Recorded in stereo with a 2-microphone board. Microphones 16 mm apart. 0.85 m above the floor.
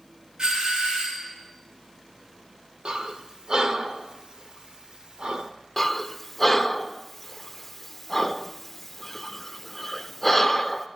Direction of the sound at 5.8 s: 10° left (ahead or behind).